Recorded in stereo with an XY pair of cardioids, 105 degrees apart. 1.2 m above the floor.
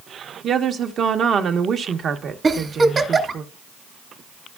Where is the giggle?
35° right, 1.7 m.